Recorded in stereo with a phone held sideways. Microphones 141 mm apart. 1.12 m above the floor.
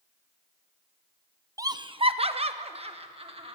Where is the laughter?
25° right (ahead or behind), 0.7 m; by 3.6 s 40° right (ahead or behind), 1.9 m.